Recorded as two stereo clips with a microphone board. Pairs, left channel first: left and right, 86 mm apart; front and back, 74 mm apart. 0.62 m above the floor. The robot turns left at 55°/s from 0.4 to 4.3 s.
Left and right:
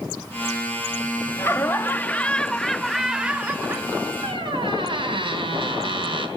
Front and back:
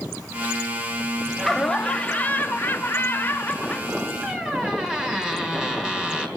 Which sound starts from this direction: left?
Laughter, at 1.4 s.